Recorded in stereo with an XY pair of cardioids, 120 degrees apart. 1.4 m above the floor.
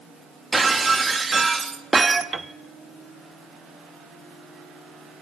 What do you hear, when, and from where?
0.5 s breaking glass: 20° right, 1.6 m
2.3 s a piano: 20° right, 0.7 m